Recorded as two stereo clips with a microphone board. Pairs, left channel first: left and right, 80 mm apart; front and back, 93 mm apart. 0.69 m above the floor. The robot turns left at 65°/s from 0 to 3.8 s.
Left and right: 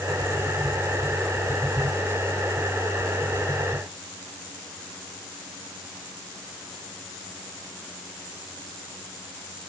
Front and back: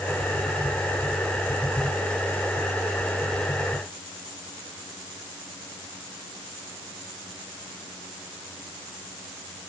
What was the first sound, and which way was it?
Only background noise.